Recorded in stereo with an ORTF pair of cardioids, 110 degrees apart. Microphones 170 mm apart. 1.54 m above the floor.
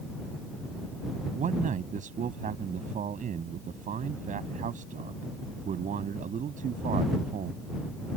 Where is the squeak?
No squeak in this recording.